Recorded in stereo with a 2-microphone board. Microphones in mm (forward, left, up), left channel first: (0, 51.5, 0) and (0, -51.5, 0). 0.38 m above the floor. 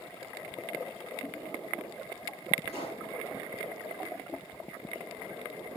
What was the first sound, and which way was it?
A pop, 75° left (ahead or behind).